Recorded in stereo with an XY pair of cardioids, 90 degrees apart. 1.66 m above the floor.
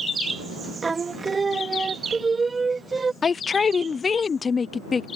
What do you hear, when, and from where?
0.8 s singing: 35° right
3.2 s a man speaking: 40° left